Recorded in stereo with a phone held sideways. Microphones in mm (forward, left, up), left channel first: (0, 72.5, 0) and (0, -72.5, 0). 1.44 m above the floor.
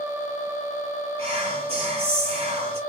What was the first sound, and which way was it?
Whispering, 45° right (ahead or behind).